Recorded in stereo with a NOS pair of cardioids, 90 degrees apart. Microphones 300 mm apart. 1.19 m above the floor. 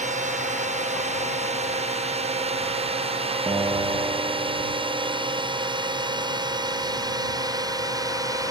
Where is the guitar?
10° right.